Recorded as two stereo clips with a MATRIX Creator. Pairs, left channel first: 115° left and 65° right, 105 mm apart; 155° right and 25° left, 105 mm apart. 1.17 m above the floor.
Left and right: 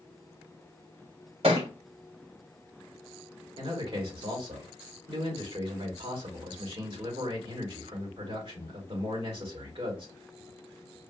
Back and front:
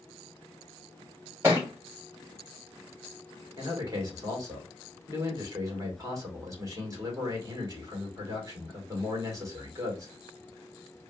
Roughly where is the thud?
Ahead right.